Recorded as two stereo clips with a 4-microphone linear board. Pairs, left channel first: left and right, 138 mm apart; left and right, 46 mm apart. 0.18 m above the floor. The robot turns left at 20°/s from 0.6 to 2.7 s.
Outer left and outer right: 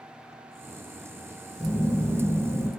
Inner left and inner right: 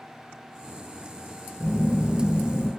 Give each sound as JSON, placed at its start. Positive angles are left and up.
{"t": 1.6, "sound": "a phone buzzing", "side_deg": 15, "distance_m": 0.6}